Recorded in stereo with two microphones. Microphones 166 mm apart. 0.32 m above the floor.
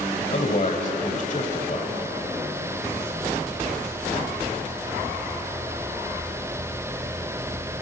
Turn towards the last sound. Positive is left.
turn(degrees=50)  # may be behind; listen again after turning